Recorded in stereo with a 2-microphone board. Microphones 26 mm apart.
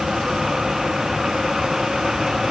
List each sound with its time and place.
Only background noise.